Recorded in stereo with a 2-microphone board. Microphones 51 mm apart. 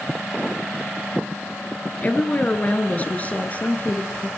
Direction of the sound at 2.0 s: 30° left (ahead or behind).